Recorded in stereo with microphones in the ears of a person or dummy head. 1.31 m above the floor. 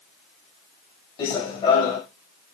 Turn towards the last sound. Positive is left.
turn(degrees=40)  # may be behind; listen again after turning